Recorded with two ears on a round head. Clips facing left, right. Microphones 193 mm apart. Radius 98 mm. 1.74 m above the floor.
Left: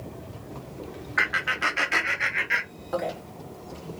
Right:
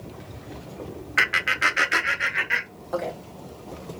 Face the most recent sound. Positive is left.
turn(degrees=5)  # may be behind; listen again after turning